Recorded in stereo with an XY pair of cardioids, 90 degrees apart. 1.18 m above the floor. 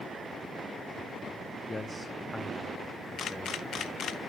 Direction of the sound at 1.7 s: 20° left.